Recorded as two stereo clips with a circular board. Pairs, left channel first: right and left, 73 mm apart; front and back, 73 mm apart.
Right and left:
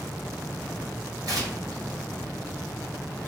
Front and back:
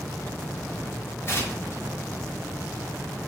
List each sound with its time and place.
1.3 s tearing paper: 55° left, 1.0 m